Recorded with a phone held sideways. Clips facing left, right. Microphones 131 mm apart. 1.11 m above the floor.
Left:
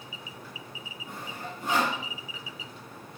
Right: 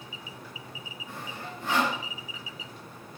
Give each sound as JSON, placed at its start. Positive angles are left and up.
{"t": 1.1, "sound": "sawing", "side_deg": 20, "distance_m": 4.0}